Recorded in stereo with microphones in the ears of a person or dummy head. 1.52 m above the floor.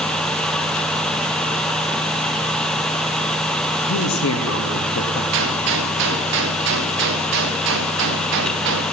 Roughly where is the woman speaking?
Left.